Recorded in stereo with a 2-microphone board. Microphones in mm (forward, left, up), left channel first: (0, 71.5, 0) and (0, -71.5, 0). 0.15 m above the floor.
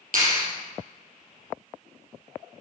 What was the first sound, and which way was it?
A clap, 75° right (ahead or behind).